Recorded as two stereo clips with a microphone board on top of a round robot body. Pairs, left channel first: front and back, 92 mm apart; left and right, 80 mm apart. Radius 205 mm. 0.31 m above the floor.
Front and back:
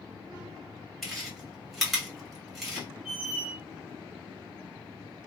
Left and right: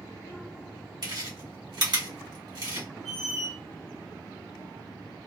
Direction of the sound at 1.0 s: 90° right.